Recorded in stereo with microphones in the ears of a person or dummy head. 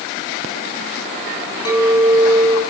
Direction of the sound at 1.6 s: 20° left (ahead or behind).